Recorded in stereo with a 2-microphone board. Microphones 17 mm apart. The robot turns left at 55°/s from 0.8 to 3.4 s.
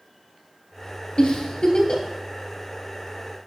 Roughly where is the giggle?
Left.